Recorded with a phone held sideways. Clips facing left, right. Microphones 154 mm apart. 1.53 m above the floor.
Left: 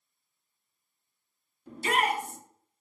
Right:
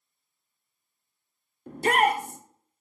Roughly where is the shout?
Right.